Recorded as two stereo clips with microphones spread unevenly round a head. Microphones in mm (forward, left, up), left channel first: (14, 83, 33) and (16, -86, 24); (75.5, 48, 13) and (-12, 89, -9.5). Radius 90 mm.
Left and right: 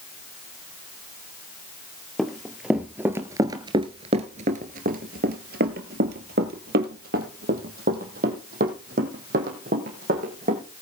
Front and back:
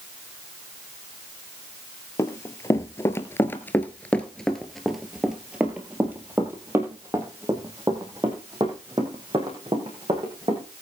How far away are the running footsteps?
About 1.5 m.